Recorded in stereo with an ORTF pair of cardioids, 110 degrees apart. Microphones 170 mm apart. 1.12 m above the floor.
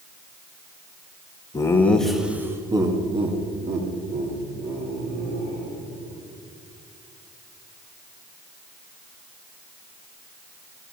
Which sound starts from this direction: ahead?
Laughter, at 1.5 s.